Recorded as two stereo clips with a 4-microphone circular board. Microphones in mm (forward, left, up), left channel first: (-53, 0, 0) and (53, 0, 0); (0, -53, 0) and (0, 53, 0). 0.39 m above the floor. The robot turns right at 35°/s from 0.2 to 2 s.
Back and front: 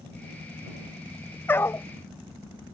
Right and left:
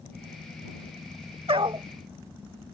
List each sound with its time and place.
1.5 s a dog barking: 110° left; by 1.9 s 125° left